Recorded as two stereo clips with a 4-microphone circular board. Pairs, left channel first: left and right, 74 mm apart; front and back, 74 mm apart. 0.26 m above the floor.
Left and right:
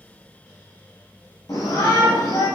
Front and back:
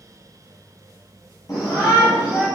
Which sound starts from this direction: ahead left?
A shout, at 1.5 s.